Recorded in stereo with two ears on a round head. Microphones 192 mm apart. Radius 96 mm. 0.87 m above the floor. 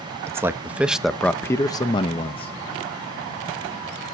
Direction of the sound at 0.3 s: 15° right (ahead or behind).